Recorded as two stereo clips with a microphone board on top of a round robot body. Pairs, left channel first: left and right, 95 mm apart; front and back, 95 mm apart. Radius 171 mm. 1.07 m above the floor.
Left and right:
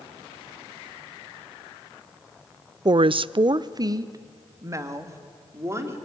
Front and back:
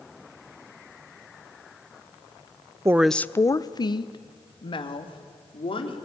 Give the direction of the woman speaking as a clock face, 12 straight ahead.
4 o'clock.